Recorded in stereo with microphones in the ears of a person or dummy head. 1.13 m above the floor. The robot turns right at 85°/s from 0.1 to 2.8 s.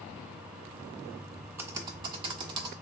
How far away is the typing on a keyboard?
About 0.5 m.